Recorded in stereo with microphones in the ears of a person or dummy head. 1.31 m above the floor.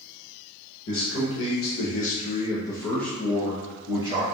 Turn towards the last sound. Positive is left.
turn(degrees=-20)  # may be behind; listen again after turning